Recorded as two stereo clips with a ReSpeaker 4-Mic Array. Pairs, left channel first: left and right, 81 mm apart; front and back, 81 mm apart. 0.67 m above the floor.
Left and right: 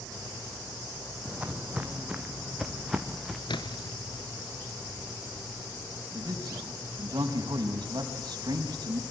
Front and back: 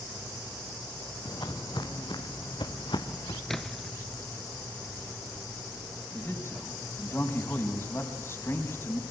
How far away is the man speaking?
About 5 m.